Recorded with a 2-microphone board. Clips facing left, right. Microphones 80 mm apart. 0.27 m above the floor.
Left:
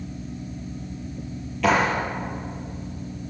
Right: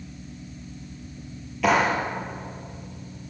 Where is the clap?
5° right (ahead or behind), 5.5 m.